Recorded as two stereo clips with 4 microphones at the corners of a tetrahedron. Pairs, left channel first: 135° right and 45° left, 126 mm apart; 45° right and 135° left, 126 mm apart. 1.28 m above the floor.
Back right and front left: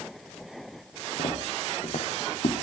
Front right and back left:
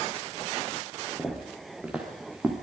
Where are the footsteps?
140° right, 6 m; by 2.5 s 145° right, 5.5 m.